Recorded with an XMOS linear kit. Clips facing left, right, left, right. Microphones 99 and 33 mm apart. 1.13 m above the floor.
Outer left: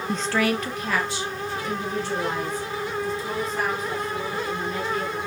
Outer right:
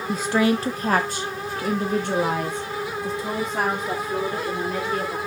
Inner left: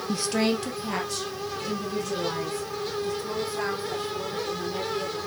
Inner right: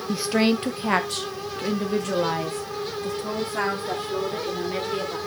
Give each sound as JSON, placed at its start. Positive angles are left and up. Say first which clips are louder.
{"t": 0.1, "sound": "a woman speaking", "louder": "outer right 3 dB, inner right 4 dB", "side_deg": 0, "distance_m": 0.6}